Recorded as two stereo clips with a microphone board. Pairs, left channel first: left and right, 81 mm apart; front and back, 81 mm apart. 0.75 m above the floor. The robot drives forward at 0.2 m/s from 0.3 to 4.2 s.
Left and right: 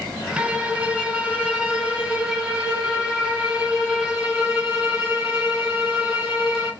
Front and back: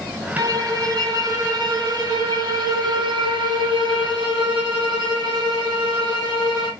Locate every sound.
0.4 s a violin: 160° right, 0.7 m; by 6.7 s 170° right, 1.4 m